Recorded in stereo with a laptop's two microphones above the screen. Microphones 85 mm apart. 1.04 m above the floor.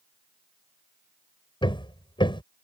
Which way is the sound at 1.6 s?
70° left (ahead or behind).